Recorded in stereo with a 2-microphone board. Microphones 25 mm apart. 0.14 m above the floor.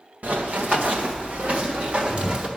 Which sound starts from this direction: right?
Running footsteps, at 0.2 s.